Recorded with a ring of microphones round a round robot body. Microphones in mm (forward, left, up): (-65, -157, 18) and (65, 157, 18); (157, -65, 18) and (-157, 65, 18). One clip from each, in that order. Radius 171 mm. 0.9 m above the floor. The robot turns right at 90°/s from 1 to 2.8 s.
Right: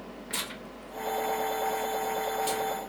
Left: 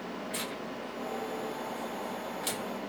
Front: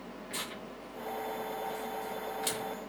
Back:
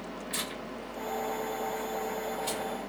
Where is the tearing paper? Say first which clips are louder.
Right 4 dB, back 3 dB; 130° right, 1.0 m; by 2.6 s 20° left, 1.0 m.